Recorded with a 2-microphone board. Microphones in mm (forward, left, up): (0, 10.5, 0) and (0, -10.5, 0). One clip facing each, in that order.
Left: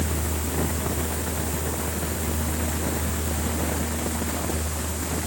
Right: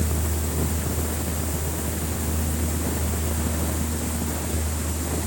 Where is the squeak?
No squeak in this recording.